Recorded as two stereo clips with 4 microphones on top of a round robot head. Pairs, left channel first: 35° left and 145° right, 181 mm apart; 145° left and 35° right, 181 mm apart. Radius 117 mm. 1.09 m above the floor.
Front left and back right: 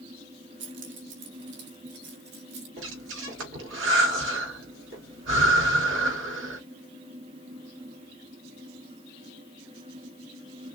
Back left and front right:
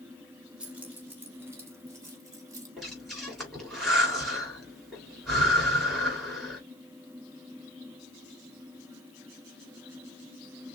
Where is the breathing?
130° right, 3 m.